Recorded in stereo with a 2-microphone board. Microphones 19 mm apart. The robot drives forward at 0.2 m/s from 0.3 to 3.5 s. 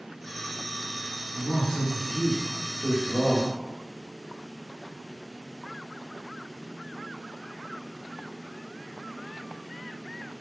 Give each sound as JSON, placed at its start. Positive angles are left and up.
{"t": 1.3, "sound": "a man speaking", "side_deg": 45, "distance_m": 0.8}